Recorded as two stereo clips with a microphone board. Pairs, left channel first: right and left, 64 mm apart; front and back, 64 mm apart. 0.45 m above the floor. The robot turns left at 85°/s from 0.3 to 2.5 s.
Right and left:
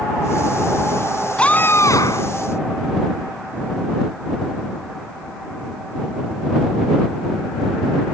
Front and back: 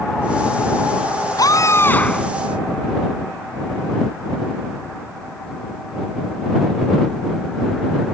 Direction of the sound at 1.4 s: 15° right.